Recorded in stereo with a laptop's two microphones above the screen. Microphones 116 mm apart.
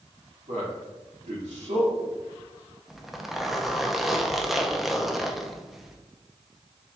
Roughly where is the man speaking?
Right.